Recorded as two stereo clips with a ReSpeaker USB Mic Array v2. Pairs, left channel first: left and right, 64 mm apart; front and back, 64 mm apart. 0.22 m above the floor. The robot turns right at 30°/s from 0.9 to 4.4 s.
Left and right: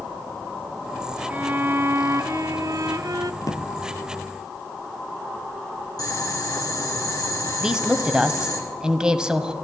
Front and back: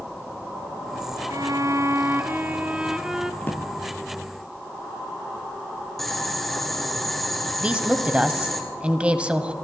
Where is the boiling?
85° left, 3.5 m.